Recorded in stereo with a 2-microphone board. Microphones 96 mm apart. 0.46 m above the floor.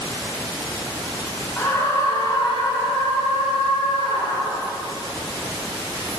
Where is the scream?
20° left (ahead or behind), 1.3 m; by 4.7 s 75° left (ahead or behind), 4 m.